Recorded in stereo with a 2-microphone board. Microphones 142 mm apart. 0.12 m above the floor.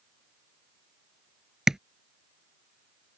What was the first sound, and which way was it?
Tapping, 5° right (ahead or behind).